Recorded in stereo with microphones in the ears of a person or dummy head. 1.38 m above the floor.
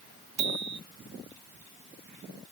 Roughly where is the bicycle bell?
Right.